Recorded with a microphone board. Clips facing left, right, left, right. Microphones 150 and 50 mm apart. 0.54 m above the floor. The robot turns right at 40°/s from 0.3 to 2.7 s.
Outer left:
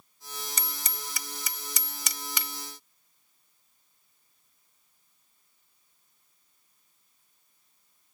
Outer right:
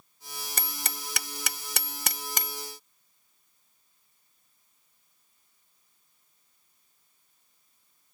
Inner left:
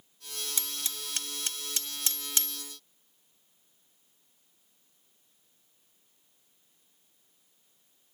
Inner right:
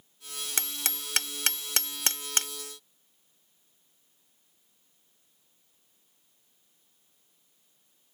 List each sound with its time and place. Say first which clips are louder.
0.6 s hammering: outer right 2 dB, inner right 4 dB; 60° right (ahead or behind); by 2.6 s 35° right (ahead or behind)